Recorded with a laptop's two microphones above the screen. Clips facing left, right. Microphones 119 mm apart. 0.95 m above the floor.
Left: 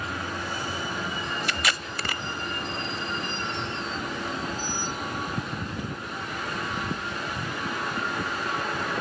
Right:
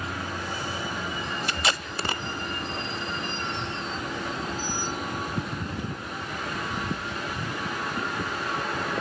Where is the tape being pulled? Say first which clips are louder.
Right 1 dB; 25° right (ahead or behind), 0.8 m.